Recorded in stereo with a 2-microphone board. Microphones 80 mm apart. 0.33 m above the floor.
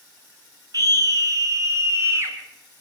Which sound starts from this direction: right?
A scream, at 0.7 s.